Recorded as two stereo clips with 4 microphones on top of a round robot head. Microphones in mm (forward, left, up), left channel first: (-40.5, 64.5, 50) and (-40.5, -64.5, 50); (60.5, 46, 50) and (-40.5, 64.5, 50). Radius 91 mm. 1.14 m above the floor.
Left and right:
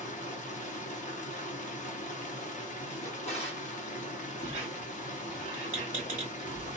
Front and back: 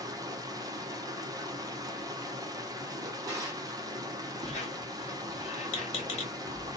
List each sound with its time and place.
0.0 s running water: 115° left, 0.8 m
3.0 s a drawer: 120° left, 1.1 m
4.4 s a squeak: 15° right, 1.0 m